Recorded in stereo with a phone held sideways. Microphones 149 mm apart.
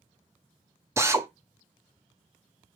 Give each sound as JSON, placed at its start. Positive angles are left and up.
{"t": 1.0, "sound": "a drill", "side_deg": -20, "distance_m": 0.8}